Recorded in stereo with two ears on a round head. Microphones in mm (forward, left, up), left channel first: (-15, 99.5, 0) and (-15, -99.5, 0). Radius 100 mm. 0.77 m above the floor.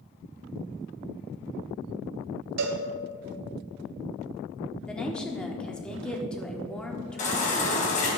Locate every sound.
2.6 s a cowbell: 75° right (ahead or behind), 1.5 m
4.9 s a woman speaking: 5° left (ahead or behind), 1.5 m
7.2 s a baby crying: 35° left (ahead or behind), 3.5 m